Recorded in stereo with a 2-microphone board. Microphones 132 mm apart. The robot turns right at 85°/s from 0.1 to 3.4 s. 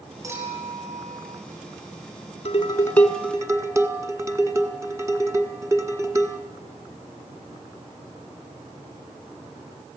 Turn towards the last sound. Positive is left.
turn(degrees=-155)